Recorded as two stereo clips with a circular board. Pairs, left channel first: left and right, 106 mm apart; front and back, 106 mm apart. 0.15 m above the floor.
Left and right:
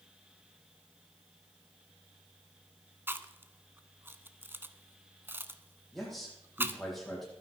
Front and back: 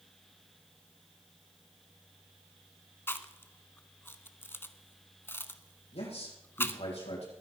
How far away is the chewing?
About 0.8 m.